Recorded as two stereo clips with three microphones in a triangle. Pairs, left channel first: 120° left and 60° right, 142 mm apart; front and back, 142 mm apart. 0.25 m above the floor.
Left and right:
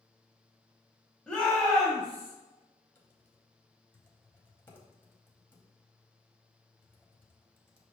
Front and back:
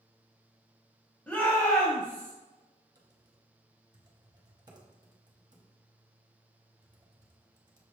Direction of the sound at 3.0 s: 175° left.